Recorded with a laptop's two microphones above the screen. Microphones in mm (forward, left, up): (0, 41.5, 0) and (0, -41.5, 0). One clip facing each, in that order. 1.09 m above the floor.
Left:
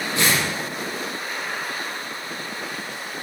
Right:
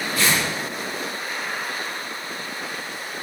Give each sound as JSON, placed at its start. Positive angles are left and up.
{"t": 0.1, "sound": "tearing paper", "side_deg": 25, "distance_m": 10.0}